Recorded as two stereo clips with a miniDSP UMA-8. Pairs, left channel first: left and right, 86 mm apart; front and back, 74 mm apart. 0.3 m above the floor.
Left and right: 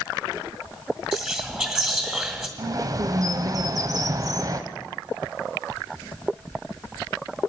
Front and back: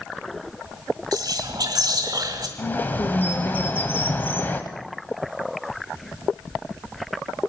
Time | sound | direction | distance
1.1 | whispering | 160° right | 1.8 m
2.6 | a bird | 55° right | 1.1 m